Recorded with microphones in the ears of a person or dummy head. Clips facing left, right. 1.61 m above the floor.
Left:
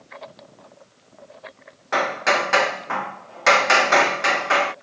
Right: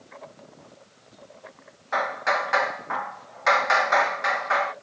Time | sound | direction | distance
1.9 | hammering | 40° left (ahead or behind) | ?